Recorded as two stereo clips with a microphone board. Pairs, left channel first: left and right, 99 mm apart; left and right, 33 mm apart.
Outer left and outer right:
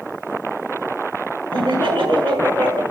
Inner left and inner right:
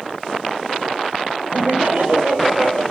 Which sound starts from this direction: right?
Laughter, at 1.5 s.